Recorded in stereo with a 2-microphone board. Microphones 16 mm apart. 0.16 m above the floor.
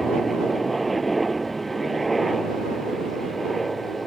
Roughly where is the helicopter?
Centre.